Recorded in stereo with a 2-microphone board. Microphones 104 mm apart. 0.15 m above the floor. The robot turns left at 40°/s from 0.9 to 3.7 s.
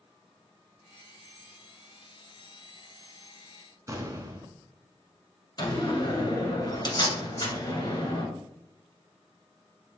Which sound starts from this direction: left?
A door slam, at 5.6 s.